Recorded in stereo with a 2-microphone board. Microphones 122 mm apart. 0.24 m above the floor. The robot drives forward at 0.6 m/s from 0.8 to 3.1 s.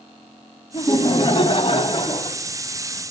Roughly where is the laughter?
Left.